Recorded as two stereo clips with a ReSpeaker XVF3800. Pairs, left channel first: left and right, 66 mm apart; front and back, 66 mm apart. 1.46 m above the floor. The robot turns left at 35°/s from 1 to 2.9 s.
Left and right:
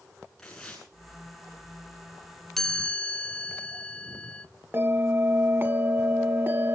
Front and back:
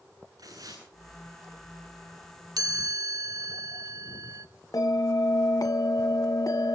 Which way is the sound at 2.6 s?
175° left.